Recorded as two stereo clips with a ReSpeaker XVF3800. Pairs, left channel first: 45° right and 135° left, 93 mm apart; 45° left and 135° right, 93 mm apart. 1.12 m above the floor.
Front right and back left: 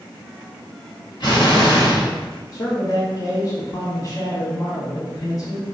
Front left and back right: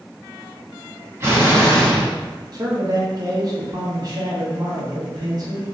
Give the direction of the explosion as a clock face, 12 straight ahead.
2 o'clock.